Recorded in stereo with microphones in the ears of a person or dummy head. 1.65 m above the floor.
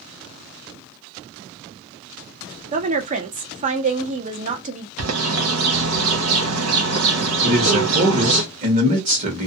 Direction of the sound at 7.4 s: 45° right (ahead or behind).